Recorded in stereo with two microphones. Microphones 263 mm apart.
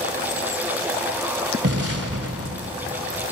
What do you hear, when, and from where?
1.6 s an explosion: 60° right (ahead or behind), 1.8 m